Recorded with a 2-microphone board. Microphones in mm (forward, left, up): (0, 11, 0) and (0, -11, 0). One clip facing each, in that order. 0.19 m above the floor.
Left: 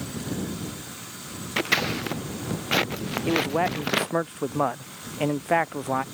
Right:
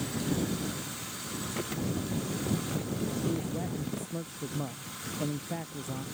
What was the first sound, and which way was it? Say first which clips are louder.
Scissors: left 12 dB; 65° left (ahead or behind).